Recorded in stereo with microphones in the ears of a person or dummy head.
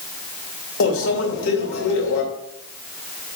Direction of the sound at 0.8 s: 70° left (ahead or behind).